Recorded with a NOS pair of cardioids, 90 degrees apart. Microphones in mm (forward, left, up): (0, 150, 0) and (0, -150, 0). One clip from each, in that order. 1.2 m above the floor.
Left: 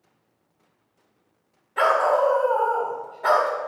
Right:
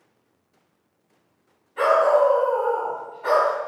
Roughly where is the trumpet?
I don't hear a trumpet.